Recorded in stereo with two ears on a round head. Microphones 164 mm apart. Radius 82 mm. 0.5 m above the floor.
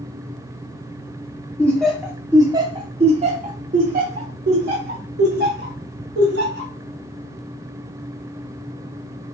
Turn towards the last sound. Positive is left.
turn(degrees=-70)  # may be behind; listen again after turning